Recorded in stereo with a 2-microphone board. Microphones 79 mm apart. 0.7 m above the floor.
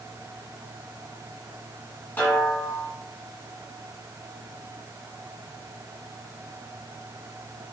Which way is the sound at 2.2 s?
25° left (ahead or behind).